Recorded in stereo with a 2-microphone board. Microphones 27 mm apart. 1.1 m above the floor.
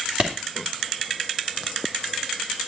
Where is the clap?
40° right (ahead or behind), 2.5 m.